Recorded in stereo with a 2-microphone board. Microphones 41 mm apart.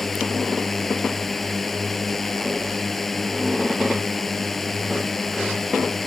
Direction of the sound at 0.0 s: 5° left (ahead or behind).